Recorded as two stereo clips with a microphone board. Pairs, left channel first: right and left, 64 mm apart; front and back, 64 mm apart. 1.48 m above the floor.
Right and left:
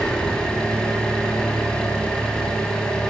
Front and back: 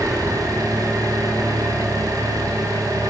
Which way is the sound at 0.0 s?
165° right.